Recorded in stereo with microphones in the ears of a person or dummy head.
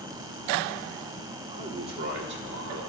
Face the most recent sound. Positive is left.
turn(degrees=-65)  # may be behind; listen again after turning